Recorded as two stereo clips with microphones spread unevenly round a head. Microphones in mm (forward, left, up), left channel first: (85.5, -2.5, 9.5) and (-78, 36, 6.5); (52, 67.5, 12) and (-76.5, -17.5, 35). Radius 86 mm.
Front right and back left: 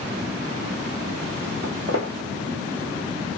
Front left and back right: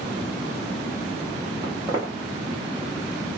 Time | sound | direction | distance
1.6 | footsteps | 165° left | 1.3 m